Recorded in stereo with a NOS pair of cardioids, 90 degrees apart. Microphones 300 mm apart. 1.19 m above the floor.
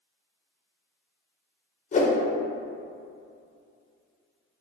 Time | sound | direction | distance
1.9 | a whoosh | 25° left | 0.5 m